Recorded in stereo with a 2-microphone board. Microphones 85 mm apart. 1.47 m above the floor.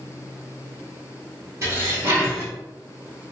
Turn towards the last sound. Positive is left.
turn(degrees=-35)  # may be behind; listen again after turning